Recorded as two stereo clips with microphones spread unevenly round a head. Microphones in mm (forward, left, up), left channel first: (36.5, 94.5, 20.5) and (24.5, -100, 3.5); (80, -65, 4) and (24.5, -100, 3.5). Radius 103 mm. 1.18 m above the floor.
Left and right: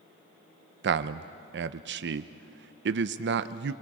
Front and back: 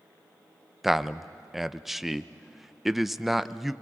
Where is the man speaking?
60° right, 0.6 m.